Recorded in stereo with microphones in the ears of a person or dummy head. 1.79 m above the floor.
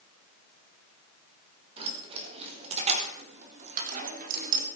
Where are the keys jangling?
35° right (ahead or behind), 4.5 m; by 4.7 s 55° right (ahead or behind), 3 m.